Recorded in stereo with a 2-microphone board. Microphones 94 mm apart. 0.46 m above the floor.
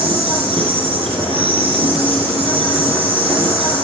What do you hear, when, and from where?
0.0 s an insect: 85° right, 4.5 m